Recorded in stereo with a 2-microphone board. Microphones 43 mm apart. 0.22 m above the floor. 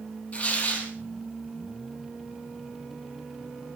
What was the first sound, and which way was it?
Tearing paper, 35° left (ahead or behind).